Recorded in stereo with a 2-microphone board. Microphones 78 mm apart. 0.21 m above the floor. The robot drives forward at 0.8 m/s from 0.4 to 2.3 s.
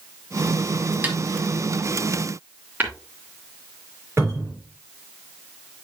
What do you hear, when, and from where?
1.0 s a snare drum: 25° right (ahead or behind), 1.4 m
2.8 s tapping: 25° right (ahead or behind), 3 m
4.2 s a cupboard door: 35° right (ahead or behind), 3.5 m